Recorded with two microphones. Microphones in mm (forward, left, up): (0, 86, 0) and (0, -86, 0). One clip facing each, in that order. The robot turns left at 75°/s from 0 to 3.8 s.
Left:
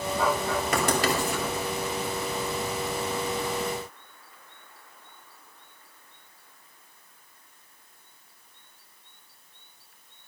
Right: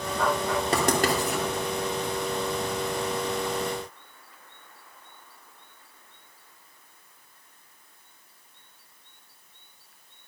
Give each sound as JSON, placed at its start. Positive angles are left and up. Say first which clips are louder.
{"t": 0.7, "sound": "writing", "louder": "right 2 dB", "side_deg": -35, "distance_m": 3.0}